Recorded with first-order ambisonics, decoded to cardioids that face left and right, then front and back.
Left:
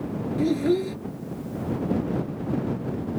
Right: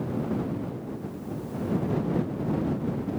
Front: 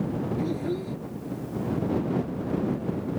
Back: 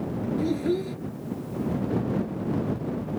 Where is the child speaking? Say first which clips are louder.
Left 11 dB, back 3 dB; 105° left.